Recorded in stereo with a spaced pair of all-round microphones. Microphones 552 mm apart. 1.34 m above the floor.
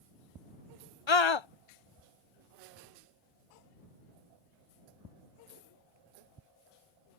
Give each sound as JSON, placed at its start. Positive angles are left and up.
{"t": 1.1, "sound": "a scream", "side_deg": 55}